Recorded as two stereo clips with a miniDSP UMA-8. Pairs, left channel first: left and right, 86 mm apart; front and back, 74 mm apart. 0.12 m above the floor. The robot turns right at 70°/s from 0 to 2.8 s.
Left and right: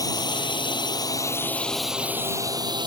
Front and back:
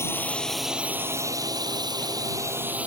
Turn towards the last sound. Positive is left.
turn(degrees=-110)